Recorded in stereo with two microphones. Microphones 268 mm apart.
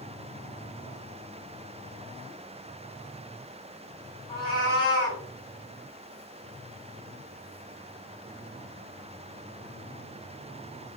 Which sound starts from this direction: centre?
A cat meowing, at 4.3 s.